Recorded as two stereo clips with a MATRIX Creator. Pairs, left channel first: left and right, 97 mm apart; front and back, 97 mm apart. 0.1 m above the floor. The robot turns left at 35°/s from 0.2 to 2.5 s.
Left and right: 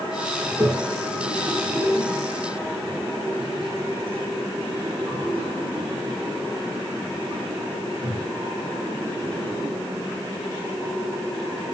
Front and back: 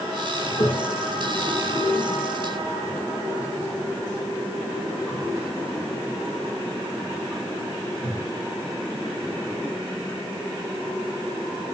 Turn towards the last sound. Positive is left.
turn(degrees=-80)